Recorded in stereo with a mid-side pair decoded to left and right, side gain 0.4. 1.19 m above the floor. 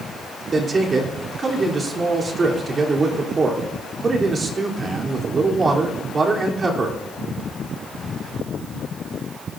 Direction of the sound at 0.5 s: 45° right.